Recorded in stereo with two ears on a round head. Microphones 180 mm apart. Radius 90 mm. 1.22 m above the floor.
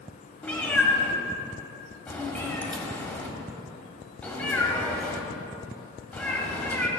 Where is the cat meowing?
5° left (ahead or behind), 1.8 m.